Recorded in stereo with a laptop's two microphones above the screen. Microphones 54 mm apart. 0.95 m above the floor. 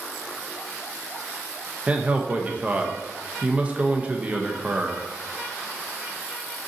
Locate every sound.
1.9 s a man speaking: 25° right (ahead or behind), 0.7 m